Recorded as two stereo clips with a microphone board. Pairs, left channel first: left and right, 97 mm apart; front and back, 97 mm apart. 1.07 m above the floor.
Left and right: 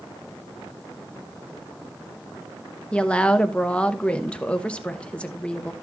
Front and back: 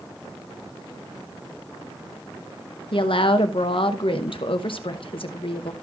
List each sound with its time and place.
2.9 s a woman speaking: 10° left, 0.9 m